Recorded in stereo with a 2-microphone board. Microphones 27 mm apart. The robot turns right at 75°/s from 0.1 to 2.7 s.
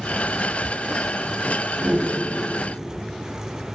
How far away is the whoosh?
About 3 m.